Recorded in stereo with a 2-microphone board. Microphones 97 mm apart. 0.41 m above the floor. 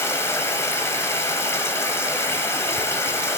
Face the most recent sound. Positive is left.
turn(degrees=25)  # may be behind; listen again after turning